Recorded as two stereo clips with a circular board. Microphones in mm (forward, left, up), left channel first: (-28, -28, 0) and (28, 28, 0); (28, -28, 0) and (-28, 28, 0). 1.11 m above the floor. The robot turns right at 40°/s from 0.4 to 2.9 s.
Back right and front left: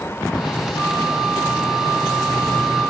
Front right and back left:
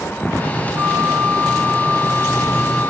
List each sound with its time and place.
0.8 s a flute: 155° right, 0.5 m; by 2.9 s 70° right, 0.5 m